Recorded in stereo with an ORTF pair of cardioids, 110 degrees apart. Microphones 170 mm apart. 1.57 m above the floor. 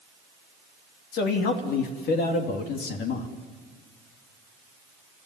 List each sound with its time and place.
1.1 s a man speaking: 70° left, 2.5 m